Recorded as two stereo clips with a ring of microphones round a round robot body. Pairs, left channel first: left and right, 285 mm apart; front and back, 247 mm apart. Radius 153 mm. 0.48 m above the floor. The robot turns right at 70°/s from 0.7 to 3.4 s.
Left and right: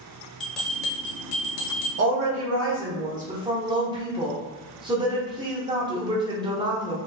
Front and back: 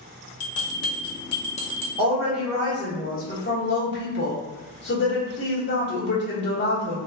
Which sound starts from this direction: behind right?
A woman speaking, at 2.0 s.